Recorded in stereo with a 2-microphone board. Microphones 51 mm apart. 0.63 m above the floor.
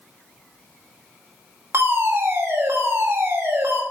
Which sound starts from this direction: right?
A fire alarm, at 1.7 s.